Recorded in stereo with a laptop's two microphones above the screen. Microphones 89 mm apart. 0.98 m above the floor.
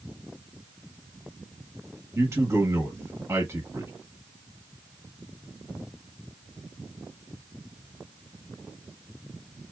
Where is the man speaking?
25° right (ahead or behind), 1.1 m.